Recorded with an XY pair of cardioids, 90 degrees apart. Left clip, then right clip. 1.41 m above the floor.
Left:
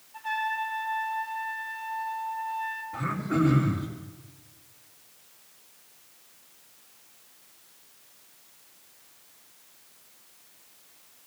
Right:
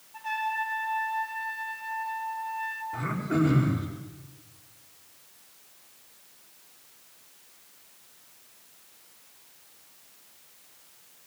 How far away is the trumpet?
About 5 m.